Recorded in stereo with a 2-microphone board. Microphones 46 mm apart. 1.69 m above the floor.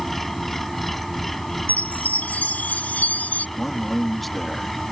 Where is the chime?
40° left (ahead or behind).